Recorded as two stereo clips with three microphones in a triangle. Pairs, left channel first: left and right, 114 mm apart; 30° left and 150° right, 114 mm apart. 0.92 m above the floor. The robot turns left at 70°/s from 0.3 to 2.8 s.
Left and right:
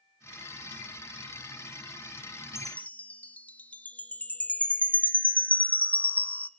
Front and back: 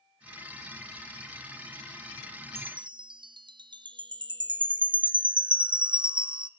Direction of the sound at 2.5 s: 175° right.